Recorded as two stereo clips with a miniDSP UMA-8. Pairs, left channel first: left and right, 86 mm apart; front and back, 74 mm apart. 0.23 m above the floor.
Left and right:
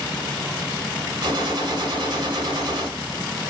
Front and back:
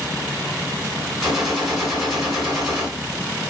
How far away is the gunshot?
About 2.0 m.